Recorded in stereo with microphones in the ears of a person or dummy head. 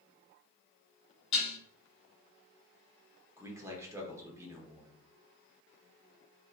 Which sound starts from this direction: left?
Dishes clattering, at 1.3 s.